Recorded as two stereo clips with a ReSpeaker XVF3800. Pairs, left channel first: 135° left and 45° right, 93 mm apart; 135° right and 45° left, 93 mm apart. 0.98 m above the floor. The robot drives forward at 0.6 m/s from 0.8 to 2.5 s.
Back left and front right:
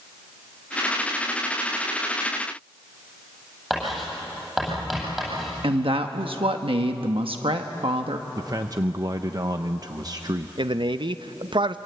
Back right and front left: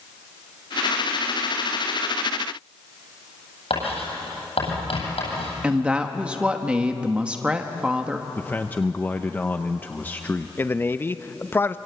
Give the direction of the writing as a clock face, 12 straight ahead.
4 o'clock.